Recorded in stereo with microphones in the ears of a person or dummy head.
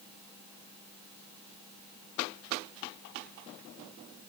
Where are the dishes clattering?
No dishes clattering in this recording.